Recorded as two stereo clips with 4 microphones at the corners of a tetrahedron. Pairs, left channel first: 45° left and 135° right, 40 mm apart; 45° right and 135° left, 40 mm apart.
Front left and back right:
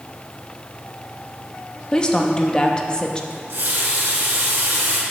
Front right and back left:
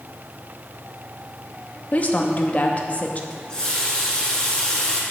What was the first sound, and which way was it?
A woman speaking, 15° right.